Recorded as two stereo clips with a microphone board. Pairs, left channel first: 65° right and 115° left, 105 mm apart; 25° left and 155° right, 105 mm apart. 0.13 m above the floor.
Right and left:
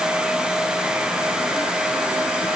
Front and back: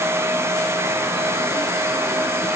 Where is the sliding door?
I don't hear a sliding door.